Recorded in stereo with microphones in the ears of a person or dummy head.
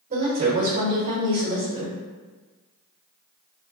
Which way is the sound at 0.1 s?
40° right (ahead or behind).